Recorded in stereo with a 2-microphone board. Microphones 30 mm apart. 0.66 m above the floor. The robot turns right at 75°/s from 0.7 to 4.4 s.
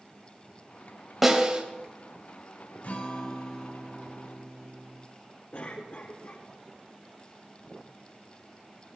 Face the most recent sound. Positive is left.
turn(degrees=65)  # may be behind; listen again after turning